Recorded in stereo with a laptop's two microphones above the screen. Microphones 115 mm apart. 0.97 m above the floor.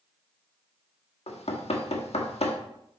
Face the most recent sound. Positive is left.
turn(degrees=60)  # may be behind; listen again after turning